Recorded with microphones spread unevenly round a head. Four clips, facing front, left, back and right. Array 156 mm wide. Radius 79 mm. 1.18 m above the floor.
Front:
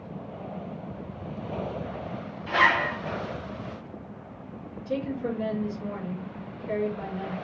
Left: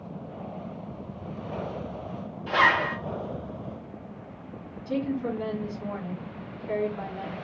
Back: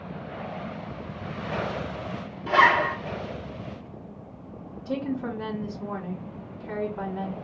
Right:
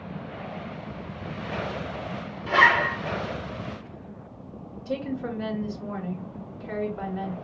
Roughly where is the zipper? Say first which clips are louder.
Right 2 dB, back 4 dB; behind right.